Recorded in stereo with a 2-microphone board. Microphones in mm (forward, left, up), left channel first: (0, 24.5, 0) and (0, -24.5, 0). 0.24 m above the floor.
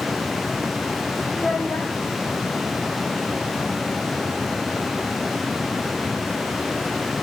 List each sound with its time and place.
1.3 s a child speaking: 30° left (ahead or behind), 1.5 m